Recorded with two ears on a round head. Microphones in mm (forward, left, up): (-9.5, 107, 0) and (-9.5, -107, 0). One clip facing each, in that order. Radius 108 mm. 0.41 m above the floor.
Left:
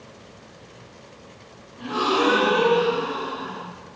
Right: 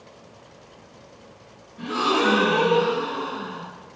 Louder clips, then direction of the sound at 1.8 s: Left 1 dB; 25° right (ahead or behind).